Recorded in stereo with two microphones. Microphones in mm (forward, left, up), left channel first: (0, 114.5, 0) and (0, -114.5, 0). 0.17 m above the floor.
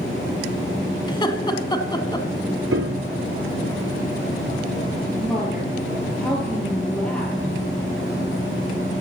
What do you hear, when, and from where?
1.1 s laughter: 20° left (ahead or behind), 1.0 m
2.7 s a piano: 70° right (ahead or behind), 0.8 m
5.2 s a woman speaking: 5° left (ahead or behind), 4 m